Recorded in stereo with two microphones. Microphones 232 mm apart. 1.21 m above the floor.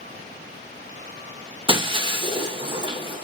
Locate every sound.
1.7 s breaking glass: 20° right (ahead or behind), 0.9 m